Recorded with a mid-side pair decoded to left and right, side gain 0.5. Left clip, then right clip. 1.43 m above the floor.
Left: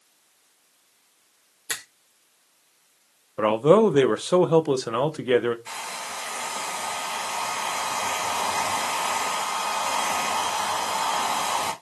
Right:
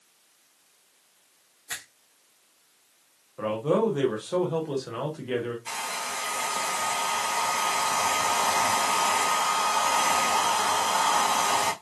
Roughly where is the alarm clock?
No alarm clock in this recording.